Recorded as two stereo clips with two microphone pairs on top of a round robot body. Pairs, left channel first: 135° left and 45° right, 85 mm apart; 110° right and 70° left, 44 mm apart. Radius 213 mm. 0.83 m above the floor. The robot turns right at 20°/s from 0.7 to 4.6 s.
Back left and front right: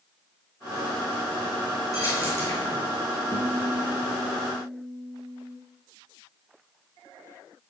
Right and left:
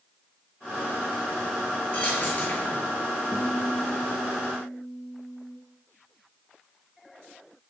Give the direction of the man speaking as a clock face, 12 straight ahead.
I don't hear a man speaking.